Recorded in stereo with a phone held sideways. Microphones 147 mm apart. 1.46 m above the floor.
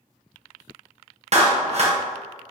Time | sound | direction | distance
1.3 | a clap | 50° right (ahead or behind) | 0.8 m